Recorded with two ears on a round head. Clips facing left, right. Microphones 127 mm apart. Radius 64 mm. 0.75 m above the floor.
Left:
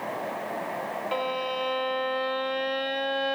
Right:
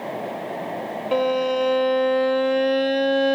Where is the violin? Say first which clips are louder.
Right 11 dB; 55° right (ahead or behind).